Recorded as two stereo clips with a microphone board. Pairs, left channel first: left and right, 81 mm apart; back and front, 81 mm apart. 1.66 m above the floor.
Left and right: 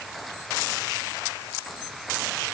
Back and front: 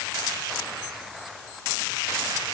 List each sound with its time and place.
Only background noise.